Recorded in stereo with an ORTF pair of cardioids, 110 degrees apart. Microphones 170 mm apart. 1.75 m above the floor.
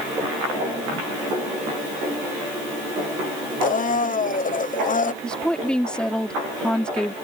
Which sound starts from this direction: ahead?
A woman speaking, at 5.2 s.